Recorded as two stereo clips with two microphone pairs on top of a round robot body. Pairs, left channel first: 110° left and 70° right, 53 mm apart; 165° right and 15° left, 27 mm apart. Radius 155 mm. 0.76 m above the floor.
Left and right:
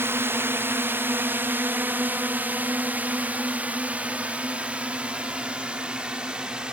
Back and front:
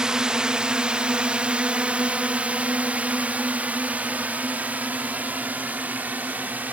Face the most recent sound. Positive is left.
turn(degrees=10)